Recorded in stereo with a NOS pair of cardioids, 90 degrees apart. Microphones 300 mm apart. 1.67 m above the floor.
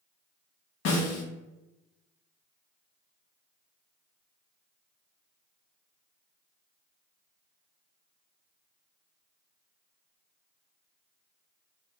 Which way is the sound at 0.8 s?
65° left.